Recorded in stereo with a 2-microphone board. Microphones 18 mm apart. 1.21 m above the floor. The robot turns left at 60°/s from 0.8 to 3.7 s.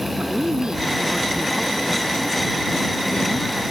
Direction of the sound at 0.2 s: 125° right.